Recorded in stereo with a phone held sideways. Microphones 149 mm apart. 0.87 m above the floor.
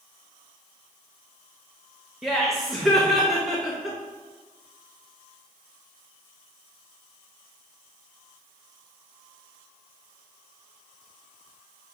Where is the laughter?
Centre (ahead or behind), 0.5 m.